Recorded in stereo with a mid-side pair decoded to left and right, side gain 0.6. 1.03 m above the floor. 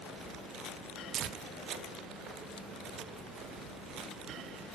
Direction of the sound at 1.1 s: 55° right.